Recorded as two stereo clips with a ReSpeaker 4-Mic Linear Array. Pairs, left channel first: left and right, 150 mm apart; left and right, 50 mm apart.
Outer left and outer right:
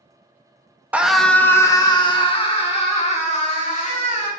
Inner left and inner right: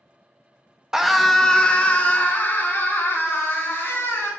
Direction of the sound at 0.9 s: 10° right (ahead or behind).